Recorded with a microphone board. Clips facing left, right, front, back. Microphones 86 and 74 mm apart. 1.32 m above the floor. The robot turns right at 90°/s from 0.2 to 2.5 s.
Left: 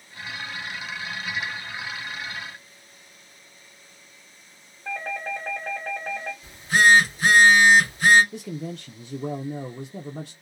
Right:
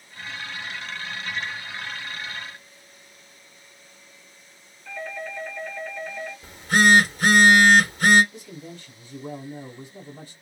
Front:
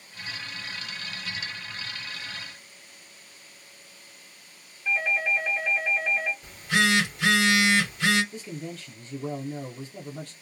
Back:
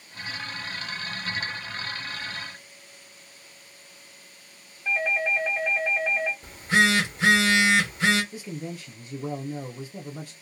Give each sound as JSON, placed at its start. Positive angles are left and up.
{"t": 4.8, "sound": "a doorbell", "azimuth_deg": 110, "distance_m": 1.3}
{"t": 6.4, "sound": "a phone buzzing", "azimuth_deg": -120, "distance_m": 1.1}
{"t": 8.3, "sound": "a man speaking", "azimuth_deg": 100, "distance_m": 0.5}